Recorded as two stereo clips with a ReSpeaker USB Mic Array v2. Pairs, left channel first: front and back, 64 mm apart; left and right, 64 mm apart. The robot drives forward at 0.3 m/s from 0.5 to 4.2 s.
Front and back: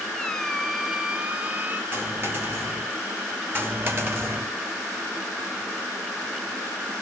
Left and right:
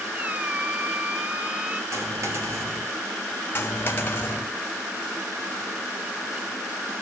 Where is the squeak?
70° right, 0.5 m; by 1.8 s 150° right, 0.6 m.